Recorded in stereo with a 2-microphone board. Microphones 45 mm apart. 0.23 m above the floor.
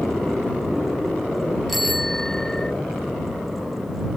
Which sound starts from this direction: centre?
A bicycle bell, at 1.7 s.